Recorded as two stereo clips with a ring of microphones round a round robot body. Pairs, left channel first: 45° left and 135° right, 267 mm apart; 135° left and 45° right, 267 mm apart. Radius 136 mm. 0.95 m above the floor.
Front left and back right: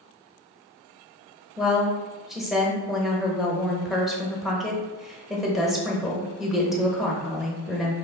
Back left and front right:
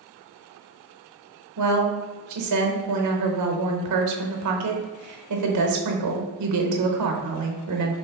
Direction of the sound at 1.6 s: 45° right.